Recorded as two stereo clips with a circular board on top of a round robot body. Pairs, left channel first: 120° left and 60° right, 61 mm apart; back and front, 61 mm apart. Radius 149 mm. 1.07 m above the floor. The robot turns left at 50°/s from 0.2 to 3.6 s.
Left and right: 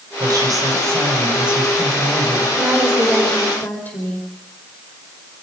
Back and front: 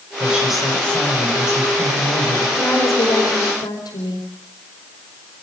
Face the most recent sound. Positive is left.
turn(degrees=-175)